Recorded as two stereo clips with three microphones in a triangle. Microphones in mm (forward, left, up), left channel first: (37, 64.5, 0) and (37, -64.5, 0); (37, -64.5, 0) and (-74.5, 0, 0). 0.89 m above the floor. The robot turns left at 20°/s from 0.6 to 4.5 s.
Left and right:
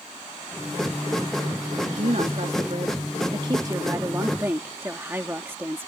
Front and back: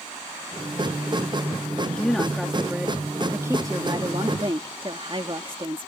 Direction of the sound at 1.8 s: 110° right.